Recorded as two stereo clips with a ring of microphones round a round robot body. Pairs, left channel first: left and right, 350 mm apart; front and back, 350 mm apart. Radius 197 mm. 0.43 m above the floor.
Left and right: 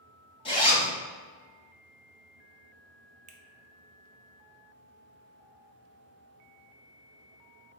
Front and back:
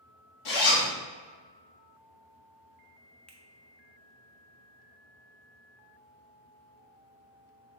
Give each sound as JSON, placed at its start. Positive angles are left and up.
{"t": 0.5, "sound": "a zipper", "azimuth_deg": 15, "distance_m": 1.6}
{"t": 3.3, "sound": "a finger snap", "azimuth_deg": -85, "distance_m": 0.5}